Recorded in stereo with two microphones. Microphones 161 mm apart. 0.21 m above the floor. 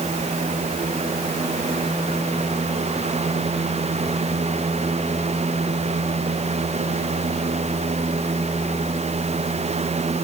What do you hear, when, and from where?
Only background noise.